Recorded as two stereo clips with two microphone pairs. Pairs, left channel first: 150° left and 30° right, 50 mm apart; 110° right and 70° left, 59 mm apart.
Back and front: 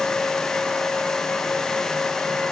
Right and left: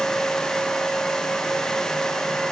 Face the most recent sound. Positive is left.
No sound to turn to.